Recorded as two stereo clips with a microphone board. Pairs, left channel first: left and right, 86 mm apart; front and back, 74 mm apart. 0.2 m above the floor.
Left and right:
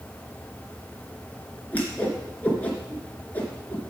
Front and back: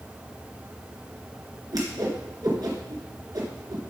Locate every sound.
1.7 s a whoosh: 160° left, 2.5 m